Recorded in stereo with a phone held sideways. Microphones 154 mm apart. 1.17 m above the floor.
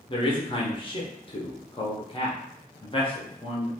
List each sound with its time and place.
0.1 s a man speaking: 35° left (ahead or behind), 0.6 m